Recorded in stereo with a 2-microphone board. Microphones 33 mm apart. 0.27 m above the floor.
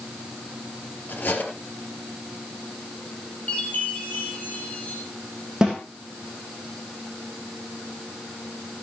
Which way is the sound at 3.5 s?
40° left (ahead or behind).